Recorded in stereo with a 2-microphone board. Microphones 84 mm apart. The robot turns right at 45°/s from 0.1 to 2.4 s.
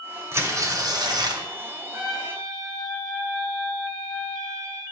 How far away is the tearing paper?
About 1.4 m.